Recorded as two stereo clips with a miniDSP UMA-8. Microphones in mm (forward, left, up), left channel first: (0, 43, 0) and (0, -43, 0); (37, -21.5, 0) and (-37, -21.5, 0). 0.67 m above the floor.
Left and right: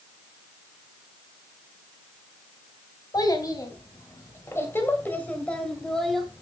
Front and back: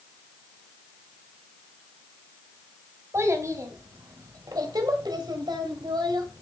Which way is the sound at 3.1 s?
130° left.